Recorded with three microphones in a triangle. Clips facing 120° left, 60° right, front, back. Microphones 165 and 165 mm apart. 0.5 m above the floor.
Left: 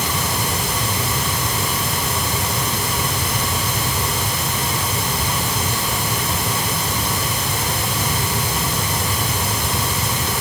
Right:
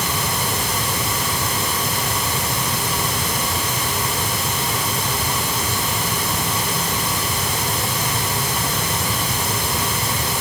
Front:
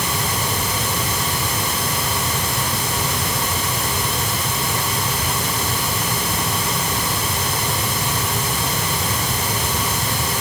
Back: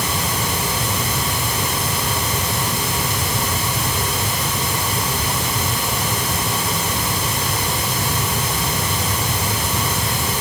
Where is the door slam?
I don't hear a door slam.